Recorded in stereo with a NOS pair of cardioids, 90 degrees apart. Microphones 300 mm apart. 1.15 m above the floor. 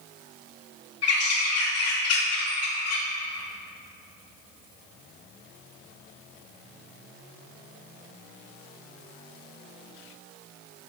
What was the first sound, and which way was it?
A bird, 55° left.